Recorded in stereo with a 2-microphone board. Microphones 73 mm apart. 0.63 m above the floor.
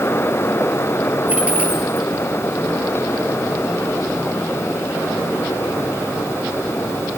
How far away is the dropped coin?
About 2.5 m.